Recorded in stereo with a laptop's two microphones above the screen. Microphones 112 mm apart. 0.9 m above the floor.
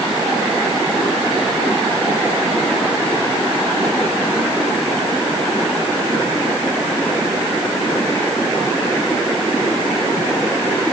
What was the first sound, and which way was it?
Only background noise.